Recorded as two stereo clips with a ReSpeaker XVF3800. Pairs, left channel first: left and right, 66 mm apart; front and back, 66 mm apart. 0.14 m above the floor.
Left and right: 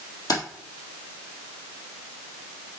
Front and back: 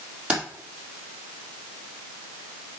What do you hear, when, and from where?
0.3 s keys jangling: 110° left, 3.5 m